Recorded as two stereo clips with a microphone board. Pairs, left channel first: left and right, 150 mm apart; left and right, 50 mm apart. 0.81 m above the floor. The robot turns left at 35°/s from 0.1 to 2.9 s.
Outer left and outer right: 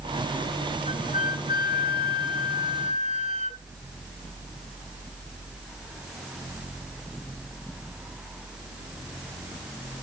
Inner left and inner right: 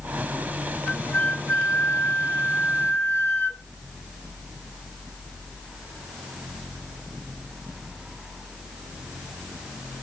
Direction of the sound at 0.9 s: 125° left.